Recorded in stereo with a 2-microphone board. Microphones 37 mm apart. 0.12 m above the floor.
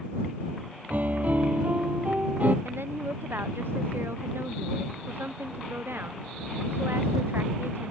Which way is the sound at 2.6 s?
85° right.